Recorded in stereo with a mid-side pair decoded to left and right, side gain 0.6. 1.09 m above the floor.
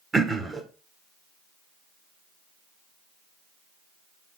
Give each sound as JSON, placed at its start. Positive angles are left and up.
{"t": 0.1, "sound": "throat clearing", "azimuth_deg": -25, "distance_m": 1.8}